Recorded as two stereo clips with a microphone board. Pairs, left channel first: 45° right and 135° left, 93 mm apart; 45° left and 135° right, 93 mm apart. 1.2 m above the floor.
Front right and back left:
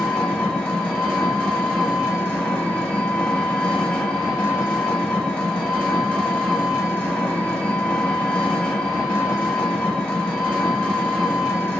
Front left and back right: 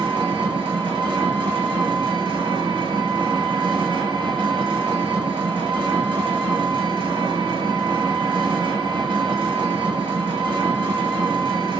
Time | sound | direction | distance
0.0 | an engine running | 125° right | 1.1 m